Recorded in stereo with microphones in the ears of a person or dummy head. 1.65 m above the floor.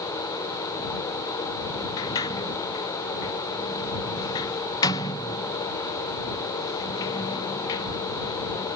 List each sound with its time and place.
2.0 s a sliding door: 30° left (ahead or behind)